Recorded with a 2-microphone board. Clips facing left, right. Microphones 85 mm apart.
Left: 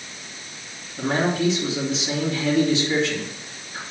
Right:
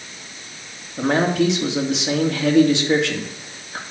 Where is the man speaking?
70° right (ahead or behind), 2 m.